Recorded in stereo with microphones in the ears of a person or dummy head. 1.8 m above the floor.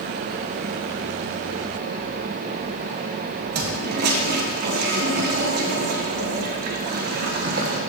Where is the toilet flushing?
50° right (ahead or behind), 1.7 m.